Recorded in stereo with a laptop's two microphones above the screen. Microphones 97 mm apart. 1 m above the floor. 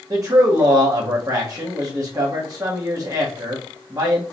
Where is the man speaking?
35° right (ahead or behind), 1.0 m.